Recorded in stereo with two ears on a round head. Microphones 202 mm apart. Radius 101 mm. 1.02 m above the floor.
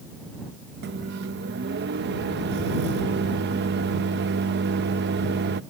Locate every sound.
0.8 s a microwave: 50° right (ahead or behind)